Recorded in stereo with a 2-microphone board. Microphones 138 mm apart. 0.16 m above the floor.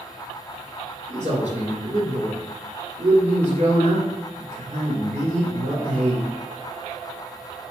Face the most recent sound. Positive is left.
turn(degrees=-55)  # may be behind; listen again after turning